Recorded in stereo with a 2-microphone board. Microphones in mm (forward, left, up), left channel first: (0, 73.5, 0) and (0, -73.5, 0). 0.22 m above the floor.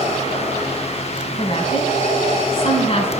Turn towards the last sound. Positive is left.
turn(degrees=40)  # may be behind; listen again after turning